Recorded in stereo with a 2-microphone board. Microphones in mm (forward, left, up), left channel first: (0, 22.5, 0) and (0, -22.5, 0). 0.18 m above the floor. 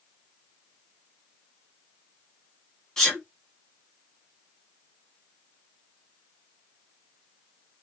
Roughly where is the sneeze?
Centre.